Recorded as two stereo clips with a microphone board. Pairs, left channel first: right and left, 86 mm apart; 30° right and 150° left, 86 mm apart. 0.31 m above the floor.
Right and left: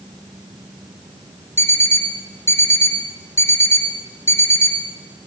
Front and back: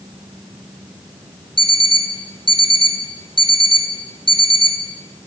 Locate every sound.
1.6 s an alarm clock: 30° right, 2.5 m